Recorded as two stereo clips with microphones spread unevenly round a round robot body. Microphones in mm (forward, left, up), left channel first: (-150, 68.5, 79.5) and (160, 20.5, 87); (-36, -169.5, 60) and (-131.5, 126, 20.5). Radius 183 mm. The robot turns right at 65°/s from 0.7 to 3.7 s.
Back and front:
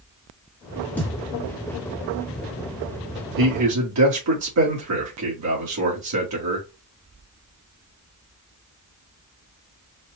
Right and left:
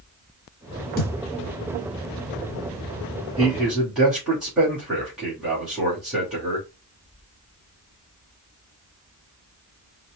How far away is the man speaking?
About 1.8 m.